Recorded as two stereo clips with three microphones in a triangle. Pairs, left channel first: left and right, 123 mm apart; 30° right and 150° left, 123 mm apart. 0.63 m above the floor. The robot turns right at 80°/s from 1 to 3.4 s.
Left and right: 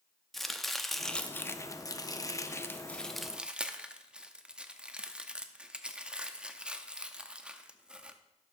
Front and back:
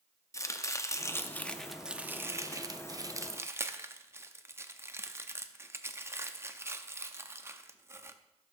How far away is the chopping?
About 0.6 m.